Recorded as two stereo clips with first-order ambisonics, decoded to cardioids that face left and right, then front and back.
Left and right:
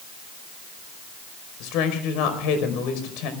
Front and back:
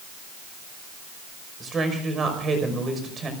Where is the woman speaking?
110° left, 5 m.